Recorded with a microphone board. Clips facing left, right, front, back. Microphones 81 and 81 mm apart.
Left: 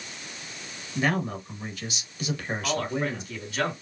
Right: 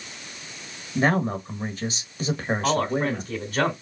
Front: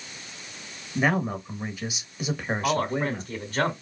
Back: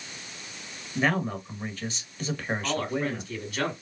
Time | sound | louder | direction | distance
0.9 | a man speaking | right 4 dB, front 2 dB | 70° right | 1.2 m
2.6 | a man speaking | right 5 dB, front 5 dB | 50° right | 2.5 m